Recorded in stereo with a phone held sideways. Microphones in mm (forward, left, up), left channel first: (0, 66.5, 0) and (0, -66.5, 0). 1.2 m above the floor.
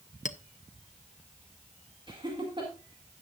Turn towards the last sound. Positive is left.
turn(degrees=-35)  # may be behind; listen again after turning